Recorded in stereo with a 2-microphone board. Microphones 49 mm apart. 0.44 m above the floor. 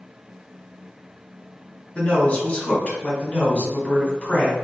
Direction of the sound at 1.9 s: 30° left (ahead or behind).